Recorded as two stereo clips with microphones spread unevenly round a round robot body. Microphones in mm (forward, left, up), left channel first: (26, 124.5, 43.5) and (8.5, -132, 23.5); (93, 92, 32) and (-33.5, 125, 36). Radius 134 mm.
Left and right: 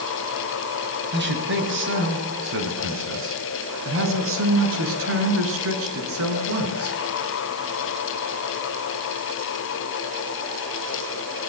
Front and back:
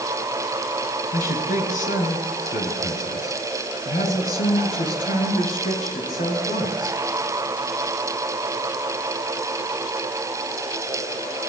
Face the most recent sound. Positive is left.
turn(degrees=-60)